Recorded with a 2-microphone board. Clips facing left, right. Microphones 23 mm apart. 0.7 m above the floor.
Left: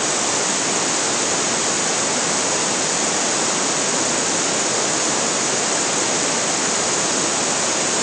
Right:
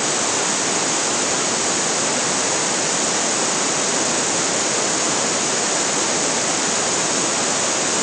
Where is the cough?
No cough in this recording.